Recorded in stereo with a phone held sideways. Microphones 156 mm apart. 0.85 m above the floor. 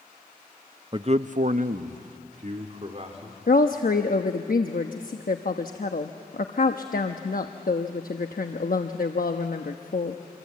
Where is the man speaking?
30° right (ahead or behind), 0.6 m; by 3.4 s 45° right (ahead or behind), 2.5 m.